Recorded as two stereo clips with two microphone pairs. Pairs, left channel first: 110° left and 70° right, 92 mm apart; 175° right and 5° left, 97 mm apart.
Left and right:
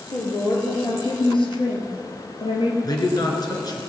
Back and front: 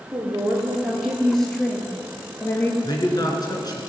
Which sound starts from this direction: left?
A woman speaking, at 0.1 s.